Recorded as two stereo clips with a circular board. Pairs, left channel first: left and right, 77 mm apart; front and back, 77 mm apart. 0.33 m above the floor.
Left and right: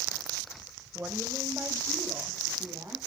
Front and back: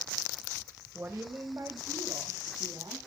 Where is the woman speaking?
140° right, 1.6 m; by 3.0 s 155° right, 3.5 m.